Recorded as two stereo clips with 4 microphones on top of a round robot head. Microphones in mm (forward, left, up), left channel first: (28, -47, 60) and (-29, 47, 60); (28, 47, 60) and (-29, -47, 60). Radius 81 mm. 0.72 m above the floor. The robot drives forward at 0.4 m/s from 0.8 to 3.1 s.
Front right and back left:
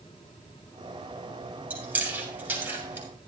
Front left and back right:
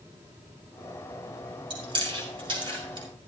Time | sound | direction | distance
1.7 | chewing | 165° right | 4.5 m